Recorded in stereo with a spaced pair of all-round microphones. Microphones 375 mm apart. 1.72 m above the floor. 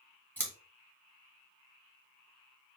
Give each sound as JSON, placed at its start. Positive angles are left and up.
{"t": 0.4, "sound": "scissors", "side_deg": 5, "distance_m": 1.5}